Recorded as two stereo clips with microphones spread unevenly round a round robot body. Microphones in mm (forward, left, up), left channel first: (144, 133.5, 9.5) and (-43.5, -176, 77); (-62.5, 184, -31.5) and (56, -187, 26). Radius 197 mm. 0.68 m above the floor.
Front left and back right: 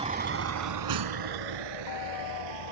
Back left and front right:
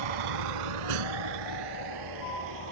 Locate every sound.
0.0 s a vehicle: 45° right; by 2.7 s 115° right